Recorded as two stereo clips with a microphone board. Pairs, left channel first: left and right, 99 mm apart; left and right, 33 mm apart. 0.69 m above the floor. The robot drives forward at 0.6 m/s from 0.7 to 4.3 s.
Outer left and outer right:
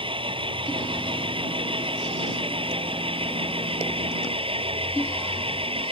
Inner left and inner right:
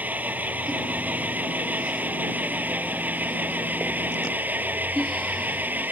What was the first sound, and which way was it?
An engine running, 60° right (ahead or behind).